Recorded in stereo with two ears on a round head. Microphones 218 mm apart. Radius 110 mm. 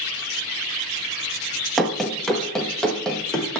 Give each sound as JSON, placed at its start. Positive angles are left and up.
{"t": 1.8, "sound": "running footsteps", "side_deg": 0, "distance_m": 0.9}